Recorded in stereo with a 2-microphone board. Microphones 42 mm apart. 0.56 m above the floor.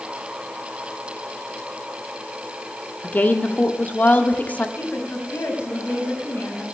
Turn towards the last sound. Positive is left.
turn(degrees=65)  # may be behind; listen again after turning